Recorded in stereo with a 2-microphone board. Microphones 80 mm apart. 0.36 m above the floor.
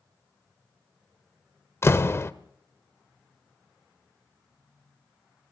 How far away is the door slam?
About 0.8 m.